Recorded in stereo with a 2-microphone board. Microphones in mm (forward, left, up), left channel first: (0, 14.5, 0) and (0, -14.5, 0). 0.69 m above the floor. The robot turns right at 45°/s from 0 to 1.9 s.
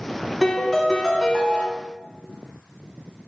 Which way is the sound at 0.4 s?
5° left.